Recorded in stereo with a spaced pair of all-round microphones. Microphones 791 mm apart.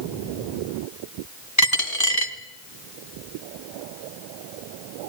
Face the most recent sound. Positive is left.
turn(degrees=20)  # may be behind; listen again after turning